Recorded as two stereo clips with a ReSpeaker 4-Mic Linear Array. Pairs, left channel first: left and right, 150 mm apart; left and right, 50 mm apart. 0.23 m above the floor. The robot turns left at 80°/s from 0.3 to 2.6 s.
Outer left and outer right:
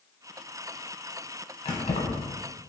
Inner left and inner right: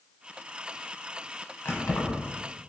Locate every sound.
1.6 s keys jangling: 40° left (ahead or behind), 1.0 m; by 2.3 s 50° left (ahead or behind), 1.0 m